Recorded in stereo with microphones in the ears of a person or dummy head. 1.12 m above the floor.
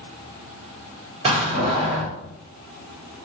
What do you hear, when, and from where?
1.2 s a door slam: 30° right (ahead or behind), 1.2 m